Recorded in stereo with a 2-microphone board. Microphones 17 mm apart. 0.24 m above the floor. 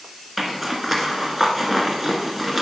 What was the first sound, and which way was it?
A zipper, 5° right (ahead or behind).